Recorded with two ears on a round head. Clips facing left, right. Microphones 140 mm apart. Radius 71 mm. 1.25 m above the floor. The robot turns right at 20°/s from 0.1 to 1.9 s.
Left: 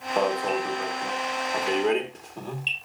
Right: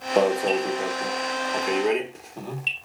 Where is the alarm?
40° right (ahead or behind), 1.4 m; by 2.8 s 5° right (ahead or behind), 1.4 m.